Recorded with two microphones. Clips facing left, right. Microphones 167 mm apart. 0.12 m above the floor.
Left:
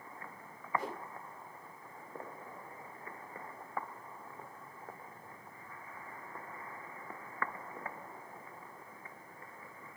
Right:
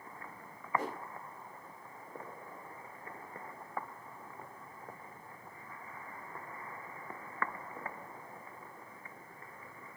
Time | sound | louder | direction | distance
0.8 | a whoosh | right 2 dB | 75° right (ahead or behind) | 4 m